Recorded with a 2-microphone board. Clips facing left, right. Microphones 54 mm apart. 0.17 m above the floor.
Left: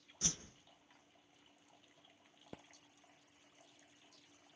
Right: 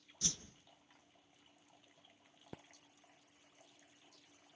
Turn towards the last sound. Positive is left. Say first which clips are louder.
# left 1 dB
turn(degrees=30)  # may be behind; listen again after turning